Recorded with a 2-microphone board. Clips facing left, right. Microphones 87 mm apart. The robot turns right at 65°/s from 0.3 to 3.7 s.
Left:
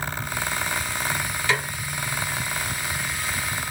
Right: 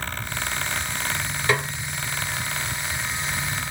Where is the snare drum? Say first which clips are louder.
Right 2 dB; 45° right (ahead or behind), 2 m; by 1.7 s 55° right (ahead or behind), 2 m.